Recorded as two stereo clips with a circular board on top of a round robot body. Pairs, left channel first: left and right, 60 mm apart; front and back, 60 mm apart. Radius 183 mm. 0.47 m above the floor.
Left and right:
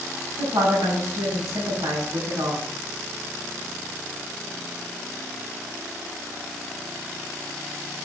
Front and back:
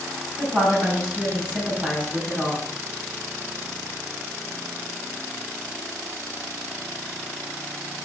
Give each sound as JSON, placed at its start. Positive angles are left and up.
{"t": 0.4, "sound": "a woman speaking", "azimuth_deg": -115, "distance_m": 5.0}